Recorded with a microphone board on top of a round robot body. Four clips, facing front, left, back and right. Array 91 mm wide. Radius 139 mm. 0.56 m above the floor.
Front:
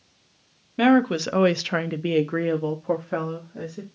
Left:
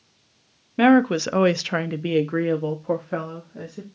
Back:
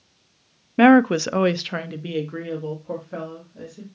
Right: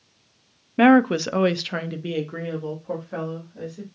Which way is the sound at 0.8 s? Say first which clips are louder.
Right 1 dB, back 5 dB; 160° right.